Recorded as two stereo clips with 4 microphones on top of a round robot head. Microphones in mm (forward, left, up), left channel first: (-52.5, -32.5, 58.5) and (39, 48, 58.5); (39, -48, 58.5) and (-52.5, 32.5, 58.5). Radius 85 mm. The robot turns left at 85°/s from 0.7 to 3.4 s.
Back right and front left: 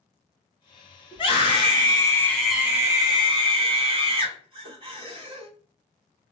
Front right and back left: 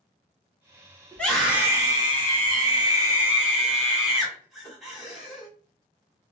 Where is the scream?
110° right, 1.7 m; by 5.5 s 55° left, 1.7 m.